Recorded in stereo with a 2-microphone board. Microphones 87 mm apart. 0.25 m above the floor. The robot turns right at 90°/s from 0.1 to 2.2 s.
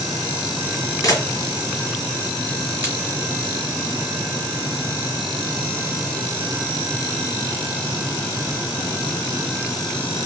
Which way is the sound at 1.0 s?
40° left (ahead or behind).